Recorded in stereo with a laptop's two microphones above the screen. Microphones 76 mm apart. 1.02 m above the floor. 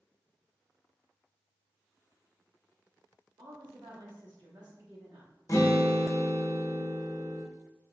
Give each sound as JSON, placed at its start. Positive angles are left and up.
{"t": 3.4, "sound": "a woman speaking", "side_deg": -70, "distance_m": 1.5}
{"t": 5.5, "sound": "a guitar", "side_deg": 45, "distance_m": 0.7}